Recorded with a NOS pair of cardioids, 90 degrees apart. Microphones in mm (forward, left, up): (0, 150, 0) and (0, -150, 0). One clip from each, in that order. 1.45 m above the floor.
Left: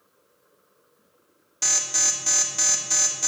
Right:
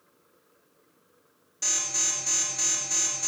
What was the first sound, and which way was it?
An alarm, 50° left.